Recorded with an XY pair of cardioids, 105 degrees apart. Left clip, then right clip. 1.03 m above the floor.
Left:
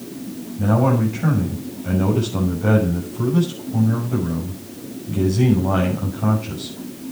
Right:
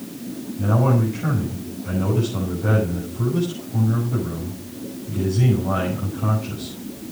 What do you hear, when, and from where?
0.6 s a man speaking: 35° left, 7 m